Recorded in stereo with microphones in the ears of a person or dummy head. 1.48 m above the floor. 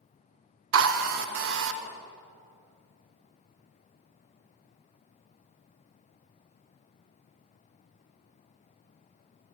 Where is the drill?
60° right (ahead or behind), 0.7 m.